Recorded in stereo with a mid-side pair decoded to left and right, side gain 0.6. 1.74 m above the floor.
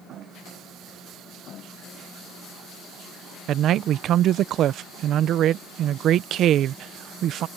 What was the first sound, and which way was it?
A man speaking, 55° right.